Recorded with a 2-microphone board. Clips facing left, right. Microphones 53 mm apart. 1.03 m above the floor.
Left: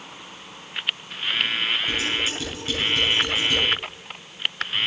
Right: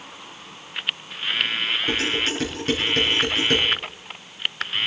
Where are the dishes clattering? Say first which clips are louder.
Right 2 dB; 55° right (ahead or behind), 8 m.